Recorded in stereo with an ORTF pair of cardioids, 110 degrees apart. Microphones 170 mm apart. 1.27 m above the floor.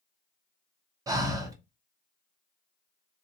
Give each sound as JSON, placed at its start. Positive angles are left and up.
{"t": 1.1, "sound": "breathing", "azimuth_deg": -20, "distance_m": 0.8}